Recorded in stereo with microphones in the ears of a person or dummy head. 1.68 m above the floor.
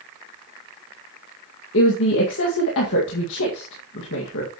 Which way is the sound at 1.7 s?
70° left (ahead or behind).